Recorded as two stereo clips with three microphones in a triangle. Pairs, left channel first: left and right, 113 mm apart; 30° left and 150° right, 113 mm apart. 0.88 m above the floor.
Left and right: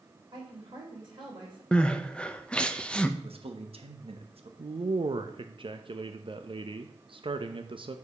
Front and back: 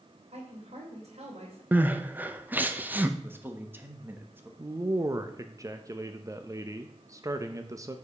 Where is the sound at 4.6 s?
100° right, 0.6 m.